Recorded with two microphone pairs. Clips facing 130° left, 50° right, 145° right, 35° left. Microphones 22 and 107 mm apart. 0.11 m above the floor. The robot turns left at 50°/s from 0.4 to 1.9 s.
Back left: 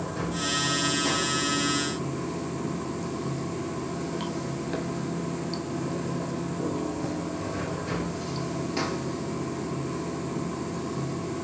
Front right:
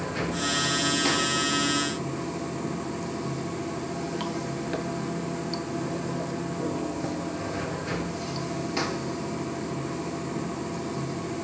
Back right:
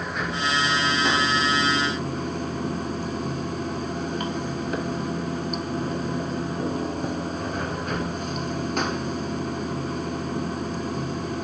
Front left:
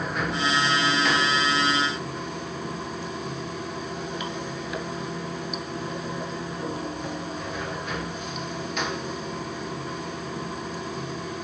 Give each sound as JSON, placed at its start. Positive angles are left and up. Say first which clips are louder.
{"t": 0.0, "sound": "running water", "louder": "front right 1 dB, front left 1 dB", "azimuth_deg": -50, "distance_m": 1.1}